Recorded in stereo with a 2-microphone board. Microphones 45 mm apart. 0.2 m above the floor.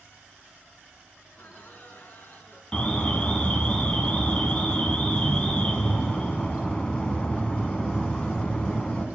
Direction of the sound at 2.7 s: 25° left (ahead or behind).